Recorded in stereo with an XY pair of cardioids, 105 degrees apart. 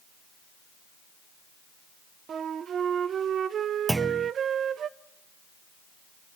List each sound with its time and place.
2.3 s a flute: 55° right, 0.7 m
3.9 s a clunk: 15° right, 0.6 m